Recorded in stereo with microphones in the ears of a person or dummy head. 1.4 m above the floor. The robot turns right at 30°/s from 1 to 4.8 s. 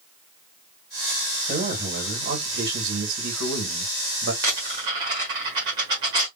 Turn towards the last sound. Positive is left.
turn(degrees=-20)  # may be behind; listen again after turning